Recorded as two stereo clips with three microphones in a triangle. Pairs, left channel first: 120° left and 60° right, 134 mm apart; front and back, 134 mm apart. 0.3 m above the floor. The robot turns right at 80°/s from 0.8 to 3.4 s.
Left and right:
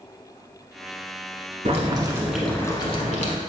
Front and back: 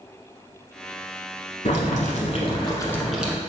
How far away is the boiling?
About 0.9 m.